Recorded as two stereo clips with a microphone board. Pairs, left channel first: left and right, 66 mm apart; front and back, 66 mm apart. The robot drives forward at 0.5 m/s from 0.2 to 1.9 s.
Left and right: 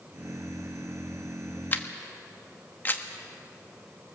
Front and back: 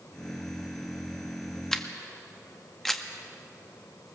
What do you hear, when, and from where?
1.7 s a camera shutter: 70° left, 1.1 m; by 3.0 s 80° left, 1.1 m